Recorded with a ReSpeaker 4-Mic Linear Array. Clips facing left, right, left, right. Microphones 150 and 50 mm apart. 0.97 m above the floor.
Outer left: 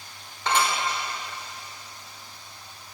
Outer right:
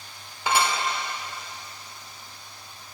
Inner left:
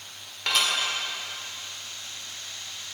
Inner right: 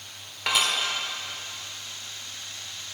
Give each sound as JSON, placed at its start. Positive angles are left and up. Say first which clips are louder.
{"t": 0.5, "sound": "dishes clattering", "louder": "outer right 1 dB, inner right 1 dB", "side_deg": -10, "distance_m": 1.7}